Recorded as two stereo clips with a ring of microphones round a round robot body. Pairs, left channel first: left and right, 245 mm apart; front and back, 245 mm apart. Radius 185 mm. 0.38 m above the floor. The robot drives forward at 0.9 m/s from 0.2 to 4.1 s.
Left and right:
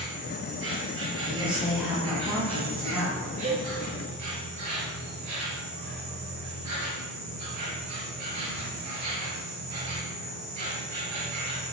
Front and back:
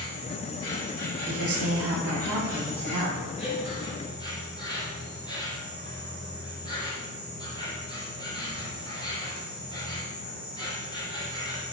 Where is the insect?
50° right, 4.5 m; by 11.7 s 105° right, 3.5 m.